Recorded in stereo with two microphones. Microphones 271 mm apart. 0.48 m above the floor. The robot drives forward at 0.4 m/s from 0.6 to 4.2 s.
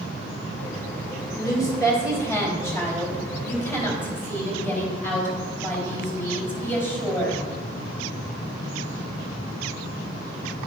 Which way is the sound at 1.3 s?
15° left (ahead or behind).